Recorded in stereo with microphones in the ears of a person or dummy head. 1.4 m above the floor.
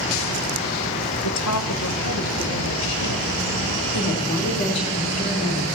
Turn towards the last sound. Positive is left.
turn(degrees=40)  # may be behind; listen again after turning